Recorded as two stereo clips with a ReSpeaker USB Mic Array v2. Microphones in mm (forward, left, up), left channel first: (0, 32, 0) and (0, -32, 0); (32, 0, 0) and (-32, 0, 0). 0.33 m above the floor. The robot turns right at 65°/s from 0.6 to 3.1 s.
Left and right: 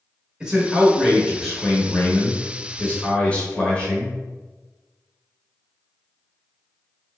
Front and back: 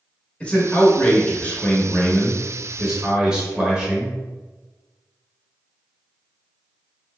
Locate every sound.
0.4 s a man speaking: 40° right, 1.0 m; by 4.1 s 125° left, 1.0 m